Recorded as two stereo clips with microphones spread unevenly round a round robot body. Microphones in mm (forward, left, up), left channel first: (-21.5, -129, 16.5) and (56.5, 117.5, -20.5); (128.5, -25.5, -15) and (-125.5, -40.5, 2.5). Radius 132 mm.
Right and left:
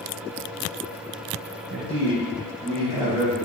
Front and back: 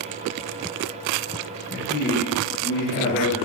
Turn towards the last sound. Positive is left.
turn(degrees=-10)